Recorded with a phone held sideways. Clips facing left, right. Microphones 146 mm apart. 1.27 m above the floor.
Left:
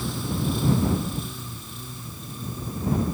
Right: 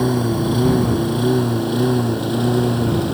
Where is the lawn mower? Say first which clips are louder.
Right 11 dB; 65° right (ahead or behind); by 3.1 s 80° right.